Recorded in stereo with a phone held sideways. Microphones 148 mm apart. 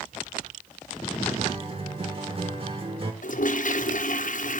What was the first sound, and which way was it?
A guitar, 40° right (ahead or behind).